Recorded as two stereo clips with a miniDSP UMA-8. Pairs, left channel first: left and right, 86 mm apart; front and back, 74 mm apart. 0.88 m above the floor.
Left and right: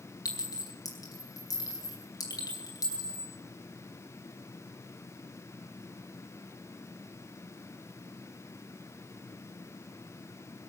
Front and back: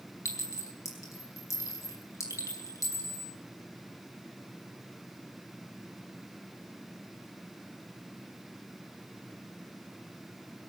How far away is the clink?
About 5 m.